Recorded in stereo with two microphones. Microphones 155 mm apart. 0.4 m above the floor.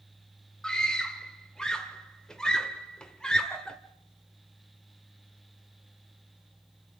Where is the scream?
5° left (ahead or behind), 1.4 m.